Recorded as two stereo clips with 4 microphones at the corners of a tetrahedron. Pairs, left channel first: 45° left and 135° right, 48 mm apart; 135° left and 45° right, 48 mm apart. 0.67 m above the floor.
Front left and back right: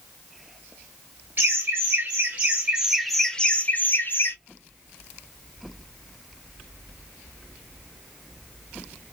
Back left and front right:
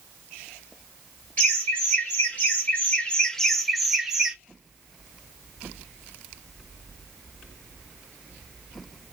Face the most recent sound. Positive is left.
turn(degrees=30)